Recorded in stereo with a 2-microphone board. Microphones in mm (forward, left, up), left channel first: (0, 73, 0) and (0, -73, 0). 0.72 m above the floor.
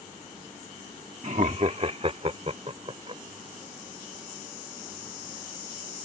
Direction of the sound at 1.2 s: 55° right (ahead or behind).